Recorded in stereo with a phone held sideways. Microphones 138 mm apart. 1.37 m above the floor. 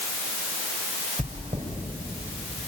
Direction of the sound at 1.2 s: 50° right (ahead or behind).